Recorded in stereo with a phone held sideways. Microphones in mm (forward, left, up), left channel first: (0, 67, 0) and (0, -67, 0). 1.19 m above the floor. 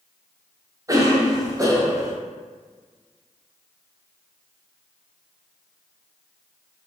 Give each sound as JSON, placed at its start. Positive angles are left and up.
{"t": 0.9, "sound": "a cough", "side_deg": -25, "distance_m": 0.7}